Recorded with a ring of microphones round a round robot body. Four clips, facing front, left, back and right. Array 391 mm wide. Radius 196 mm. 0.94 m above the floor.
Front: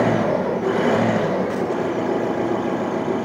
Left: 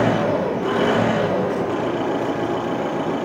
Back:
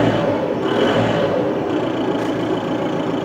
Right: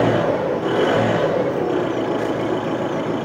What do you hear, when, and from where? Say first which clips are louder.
0.0 s an engine running: right 1 dB, back 2 dB; 175° right, 8 m